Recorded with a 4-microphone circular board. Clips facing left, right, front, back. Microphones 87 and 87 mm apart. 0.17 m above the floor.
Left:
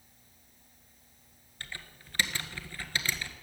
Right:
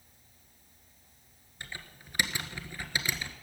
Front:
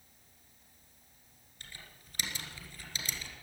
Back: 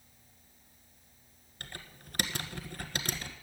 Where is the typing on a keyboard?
160° right, 1.4 m.